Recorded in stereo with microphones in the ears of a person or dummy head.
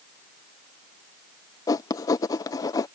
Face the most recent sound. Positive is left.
turn(degrees=25)  # may be behind; listen again after turning